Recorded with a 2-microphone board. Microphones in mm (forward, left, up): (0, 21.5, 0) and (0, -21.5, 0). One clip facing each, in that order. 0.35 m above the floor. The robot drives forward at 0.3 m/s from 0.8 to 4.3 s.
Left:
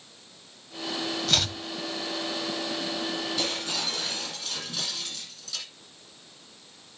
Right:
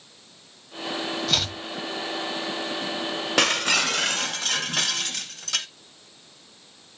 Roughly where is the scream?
No scream in this recording.